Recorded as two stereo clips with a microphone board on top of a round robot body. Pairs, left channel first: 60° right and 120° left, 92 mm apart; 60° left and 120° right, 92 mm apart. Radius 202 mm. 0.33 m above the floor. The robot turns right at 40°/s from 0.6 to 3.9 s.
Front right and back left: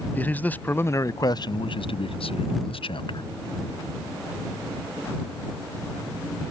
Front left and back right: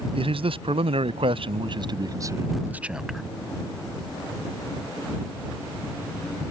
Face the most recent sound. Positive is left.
turn(degrees=0)